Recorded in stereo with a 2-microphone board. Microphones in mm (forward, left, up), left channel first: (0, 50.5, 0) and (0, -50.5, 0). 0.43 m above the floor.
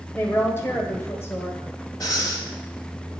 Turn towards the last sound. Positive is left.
turn(degrees=45)  # may be behind; listen again after turning